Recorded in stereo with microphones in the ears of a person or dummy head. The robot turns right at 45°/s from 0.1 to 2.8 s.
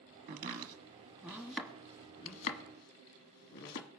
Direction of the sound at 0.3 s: 55° right (ahead or behind).